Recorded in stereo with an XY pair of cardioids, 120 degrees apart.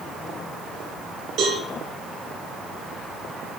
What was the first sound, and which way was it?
A cowbell, 60° right.